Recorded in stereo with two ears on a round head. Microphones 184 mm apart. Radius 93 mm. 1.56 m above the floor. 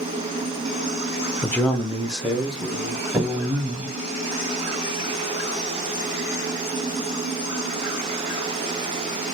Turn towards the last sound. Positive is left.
turn(degrees=-25)  # may be behind; listen again after turning